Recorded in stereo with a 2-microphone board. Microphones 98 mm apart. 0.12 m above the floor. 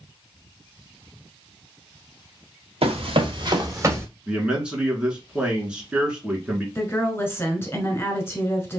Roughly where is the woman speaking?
Left.